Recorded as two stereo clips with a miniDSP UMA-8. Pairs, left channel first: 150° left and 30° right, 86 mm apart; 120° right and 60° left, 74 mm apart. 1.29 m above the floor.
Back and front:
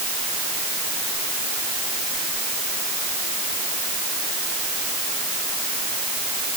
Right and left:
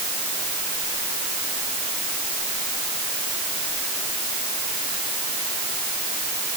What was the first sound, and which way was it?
Only background noise.